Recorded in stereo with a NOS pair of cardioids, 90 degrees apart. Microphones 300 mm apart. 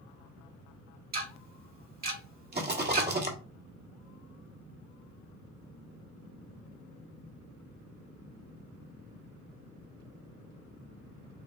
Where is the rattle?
35° right, 1.5 m.